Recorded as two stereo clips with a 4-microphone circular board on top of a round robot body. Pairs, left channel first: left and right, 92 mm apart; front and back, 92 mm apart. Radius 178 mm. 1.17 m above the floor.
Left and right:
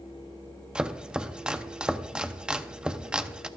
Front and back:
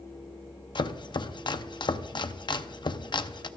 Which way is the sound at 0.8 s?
10° right.